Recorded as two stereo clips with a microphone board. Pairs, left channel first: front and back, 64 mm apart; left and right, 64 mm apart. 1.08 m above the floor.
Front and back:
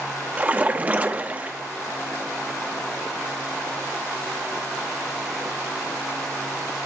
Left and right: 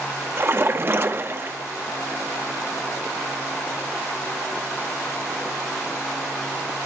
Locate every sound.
0.4 s a splash: 120° right, 0.8 m